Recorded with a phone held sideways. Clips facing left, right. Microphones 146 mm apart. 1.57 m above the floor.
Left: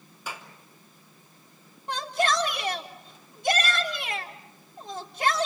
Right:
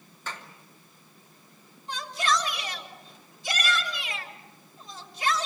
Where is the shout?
60° left (ahead or behind), 3.5 m.